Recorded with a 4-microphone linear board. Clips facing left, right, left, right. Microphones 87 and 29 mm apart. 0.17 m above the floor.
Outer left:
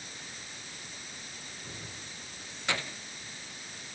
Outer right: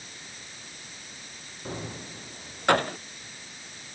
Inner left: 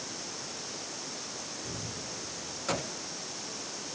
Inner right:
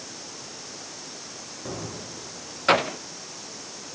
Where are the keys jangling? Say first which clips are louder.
Outer right 13 dB, inner right 4 dB; 50° right (ahead or behind); by 3.0 s 55° right (ahead or behind).